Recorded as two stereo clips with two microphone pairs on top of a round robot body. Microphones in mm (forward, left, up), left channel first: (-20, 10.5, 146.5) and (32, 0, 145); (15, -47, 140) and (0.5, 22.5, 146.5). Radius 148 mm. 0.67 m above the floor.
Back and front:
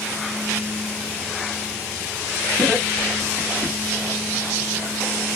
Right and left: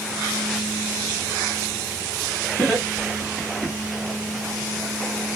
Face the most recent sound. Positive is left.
turn(degrees=20)